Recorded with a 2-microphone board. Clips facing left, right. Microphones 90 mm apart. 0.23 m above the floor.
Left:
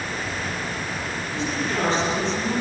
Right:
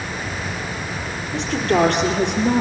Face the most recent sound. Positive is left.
turn(degrees=-75)  # may be behind; listen again after turning